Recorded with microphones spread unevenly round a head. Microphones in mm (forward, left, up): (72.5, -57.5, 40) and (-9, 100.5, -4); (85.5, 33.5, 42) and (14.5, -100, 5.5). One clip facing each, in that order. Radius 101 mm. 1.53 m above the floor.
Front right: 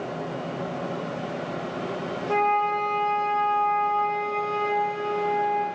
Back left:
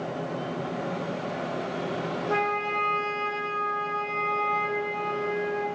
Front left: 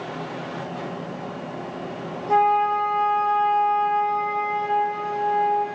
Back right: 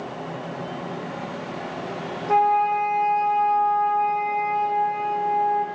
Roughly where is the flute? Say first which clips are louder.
Front right 7 dB, even; ahead right.